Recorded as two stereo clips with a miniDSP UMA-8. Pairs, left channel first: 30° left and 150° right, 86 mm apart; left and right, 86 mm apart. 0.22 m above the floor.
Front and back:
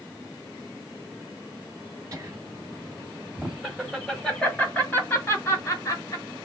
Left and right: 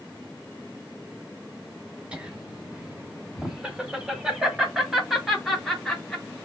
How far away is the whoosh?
I don't hear a whoosh.